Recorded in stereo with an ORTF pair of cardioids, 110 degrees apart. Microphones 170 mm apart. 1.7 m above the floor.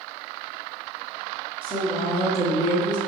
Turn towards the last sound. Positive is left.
turn(degrees=50)